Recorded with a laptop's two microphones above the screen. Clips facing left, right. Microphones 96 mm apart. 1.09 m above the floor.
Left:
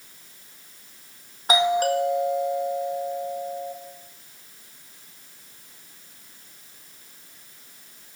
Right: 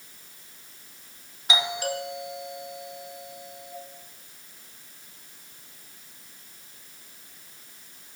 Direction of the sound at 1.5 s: 50° left (ahead or behind).